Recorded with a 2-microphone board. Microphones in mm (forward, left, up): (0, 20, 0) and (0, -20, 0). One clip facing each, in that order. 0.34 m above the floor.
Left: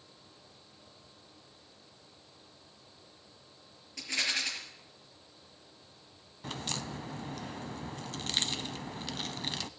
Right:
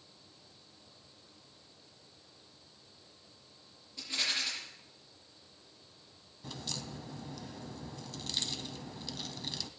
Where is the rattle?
80° left, 5.5 m.